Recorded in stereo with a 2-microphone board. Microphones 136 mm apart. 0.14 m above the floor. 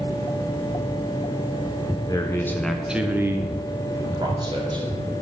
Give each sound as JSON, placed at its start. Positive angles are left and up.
{"t": 2.1, "sound": "a man speaking", "side_deg": 30, "distance_m": 1.5}